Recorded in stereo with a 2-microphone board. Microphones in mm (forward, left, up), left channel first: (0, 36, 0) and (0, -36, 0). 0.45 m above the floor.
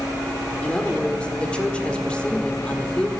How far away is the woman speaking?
About 1.5 m.